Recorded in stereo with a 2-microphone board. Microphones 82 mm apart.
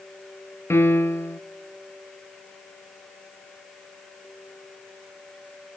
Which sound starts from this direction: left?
A piano, at 0.7 s.